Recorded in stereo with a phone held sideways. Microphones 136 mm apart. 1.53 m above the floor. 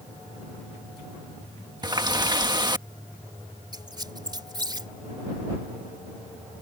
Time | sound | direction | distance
1.8 | a running tap | 30° right (ahead or behind) | ?
3.7 | a squeak | 30° right (ahead or behind) | ?